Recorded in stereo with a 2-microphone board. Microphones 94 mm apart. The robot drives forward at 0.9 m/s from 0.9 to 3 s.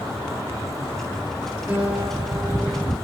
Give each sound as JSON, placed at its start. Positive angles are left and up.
{"t": 1.7, "sound": "a guitar", "side_deg": -15, "distance_m": 3.5}